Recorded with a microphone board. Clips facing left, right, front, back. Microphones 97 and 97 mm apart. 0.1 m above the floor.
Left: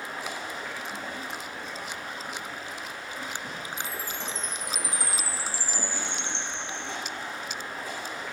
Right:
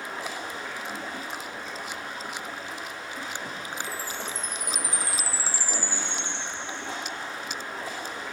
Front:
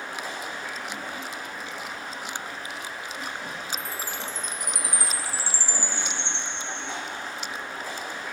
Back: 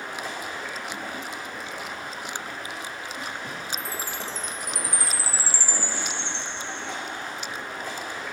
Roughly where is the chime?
Ahead left.